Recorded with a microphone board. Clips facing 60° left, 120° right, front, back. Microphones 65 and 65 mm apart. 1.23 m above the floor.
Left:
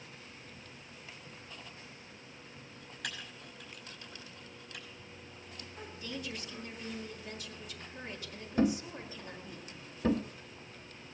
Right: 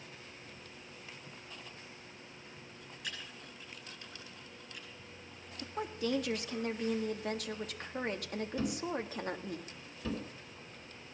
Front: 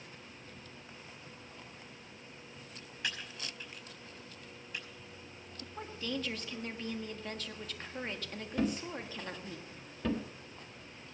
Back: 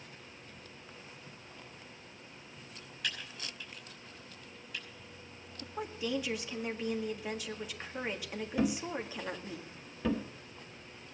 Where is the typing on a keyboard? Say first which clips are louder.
Left 3 dB, even; 65° left, 5 m.